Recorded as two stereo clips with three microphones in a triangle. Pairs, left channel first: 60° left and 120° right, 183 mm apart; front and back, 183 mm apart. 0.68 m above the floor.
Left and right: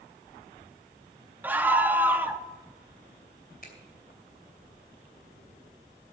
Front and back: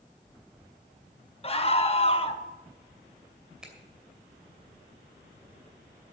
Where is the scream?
45° right, 1.0 m.